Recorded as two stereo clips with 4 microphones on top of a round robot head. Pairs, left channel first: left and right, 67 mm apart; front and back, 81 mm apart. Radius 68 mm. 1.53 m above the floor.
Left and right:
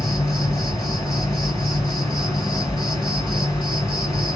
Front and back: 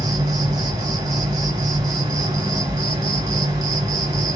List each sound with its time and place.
0.0 s an insect: 155° left, 1.8 m